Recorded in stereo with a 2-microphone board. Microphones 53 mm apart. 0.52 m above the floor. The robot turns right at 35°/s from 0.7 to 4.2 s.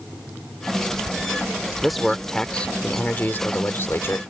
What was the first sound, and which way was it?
A man speaking, 5° right.